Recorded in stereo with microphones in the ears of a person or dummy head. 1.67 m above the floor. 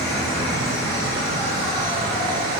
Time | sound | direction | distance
0.0 | an insect | 30° right (ahead or behind) | 2 m